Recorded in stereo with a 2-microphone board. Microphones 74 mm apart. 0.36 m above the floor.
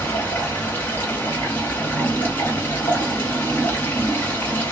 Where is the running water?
30° left (ahead or behind), 1.6 m.